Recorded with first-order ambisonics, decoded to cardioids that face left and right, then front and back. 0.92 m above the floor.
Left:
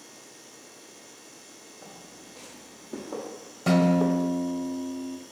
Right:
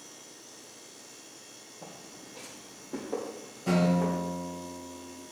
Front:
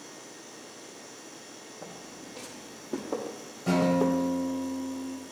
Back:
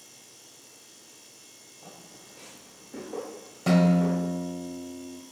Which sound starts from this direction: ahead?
Footsteps, at 1.8 s.